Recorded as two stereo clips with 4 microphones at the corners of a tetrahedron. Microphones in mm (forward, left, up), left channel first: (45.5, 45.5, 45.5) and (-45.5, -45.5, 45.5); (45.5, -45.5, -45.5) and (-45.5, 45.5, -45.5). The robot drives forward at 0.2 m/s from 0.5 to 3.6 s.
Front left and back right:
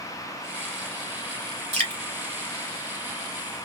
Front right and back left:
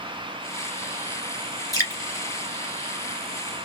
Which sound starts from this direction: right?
Dripping, at 1.7 s.